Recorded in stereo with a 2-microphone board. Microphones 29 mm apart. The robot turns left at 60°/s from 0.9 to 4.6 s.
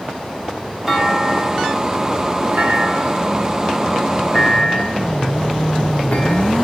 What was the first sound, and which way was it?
A clunk, 10° right (ahead or behind).